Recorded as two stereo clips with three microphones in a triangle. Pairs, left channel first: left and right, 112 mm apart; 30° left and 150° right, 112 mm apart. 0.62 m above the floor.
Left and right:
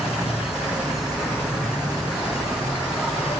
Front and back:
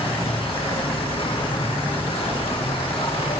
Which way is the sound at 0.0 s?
5° right.